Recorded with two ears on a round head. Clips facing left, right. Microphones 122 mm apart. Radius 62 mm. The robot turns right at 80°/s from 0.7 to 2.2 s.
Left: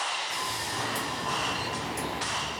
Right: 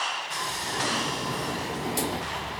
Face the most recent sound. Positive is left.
turn(degrees=-80)